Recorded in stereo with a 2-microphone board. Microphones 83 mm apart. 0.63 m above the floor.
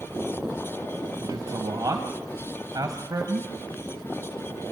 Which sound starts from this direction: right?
A man speaking, at 1.2 s.